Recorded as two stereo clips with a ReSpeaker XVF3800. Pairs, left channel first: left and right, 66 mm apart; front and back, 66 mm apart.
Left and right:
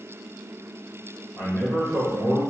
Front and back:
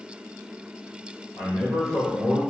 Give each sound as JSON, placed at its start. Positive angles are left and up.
{"t": 1.4, "sound": "a man speaking", "azimuth_deg": -70, "distance_m": 2.0}